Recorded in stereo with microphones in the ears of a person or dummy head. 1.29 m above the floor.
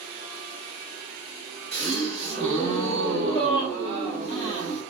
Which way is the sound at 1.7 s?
20° left (ahead or behind).